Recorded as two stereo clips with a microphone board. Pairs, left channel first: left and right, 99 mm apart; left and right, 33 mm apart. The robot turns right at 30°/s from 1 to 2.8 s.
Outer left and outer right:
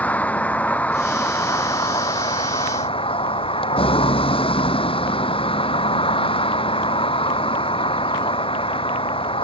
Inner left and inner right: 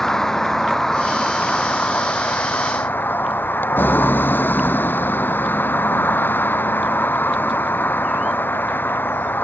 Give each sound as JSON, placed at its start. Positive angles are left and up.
{"t": 0.0, "sound": "a vehicle", "azimuth_deg": 15}